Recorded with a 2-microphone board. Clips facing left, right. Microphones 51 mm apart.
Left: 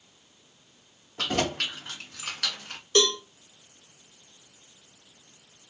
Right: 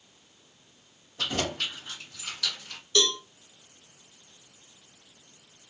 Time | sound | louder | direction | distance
1.2 | keys jangling | left 3 dB | 60° left (ahead or behind) | 2.5 m
3.0 | a cowbell | left 3 dB | 45° left (ahead or behind) | 1.4 m